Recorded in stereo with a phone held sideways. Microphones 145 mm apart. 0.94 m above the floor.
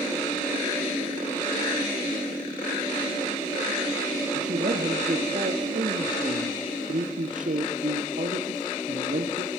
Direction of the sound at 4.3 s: 65° right (ahead or behind).